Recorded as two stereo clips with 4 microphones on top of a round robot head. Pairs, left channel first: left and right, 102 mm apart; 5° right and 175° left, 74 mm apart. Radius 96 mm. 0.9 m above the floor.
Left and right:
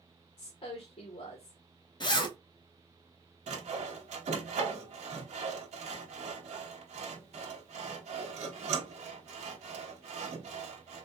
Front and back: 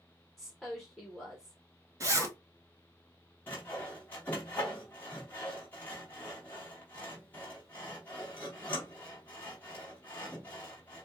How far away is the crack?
I don't hear a crack.